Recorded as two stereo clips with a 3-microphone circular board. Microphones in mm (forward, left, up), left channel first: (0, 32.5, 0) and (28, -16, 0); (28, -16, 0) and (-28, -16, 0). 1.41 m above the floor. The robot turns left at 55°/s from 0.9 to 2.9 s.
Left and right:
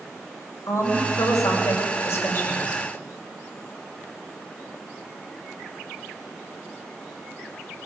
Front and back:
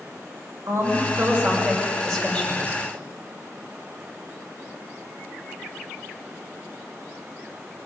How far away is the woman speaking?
About 6 m.